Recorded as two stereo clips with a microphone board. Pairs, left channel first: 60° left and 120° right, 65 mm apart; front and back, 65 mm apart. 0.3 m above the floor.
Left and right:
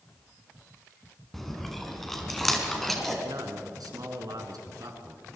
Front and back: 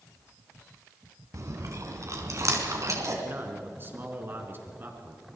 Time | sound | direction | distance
1.3 | chewing | 145° left | 3 m
3.2 | a man speaking | 125° right | 4 m